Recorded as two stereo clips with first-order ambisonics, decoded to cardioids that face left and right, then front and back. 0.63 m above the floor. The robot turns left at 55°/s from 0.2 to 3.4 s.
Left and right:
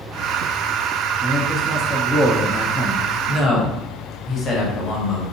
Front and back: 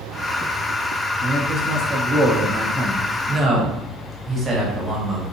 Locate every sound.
1.2 s a man speaking: 160° right, 0.6 m; by 3.1 s 95° left, 0.6 m
3.3 s a man speaking: 130° left, 1.0 m; by 5.2 s 125° left, 1.0 m